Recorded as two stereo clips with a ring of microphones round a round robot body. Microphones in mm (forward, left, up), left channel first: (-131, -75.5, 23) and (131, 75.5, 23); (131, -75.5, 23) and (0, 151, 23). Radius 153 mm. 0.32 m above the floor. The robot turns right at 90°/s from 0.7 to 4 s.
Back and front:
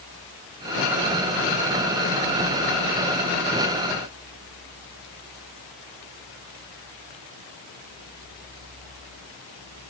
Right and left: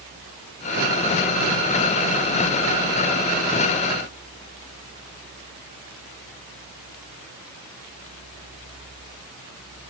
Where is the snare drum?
No snare drum in this recording.